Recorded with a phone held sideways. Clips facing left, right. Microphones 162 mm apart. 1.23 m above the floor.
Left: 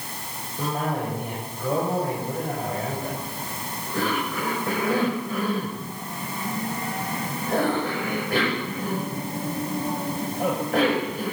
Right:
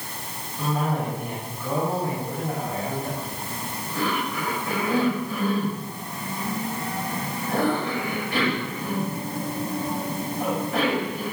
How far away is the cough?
About 6.5 m.